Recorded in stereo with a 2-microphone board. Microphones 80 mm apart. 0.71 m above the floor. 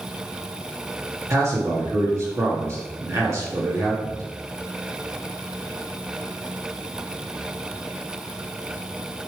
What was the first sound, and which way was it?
A man speaking, 40° right (ahead or behind).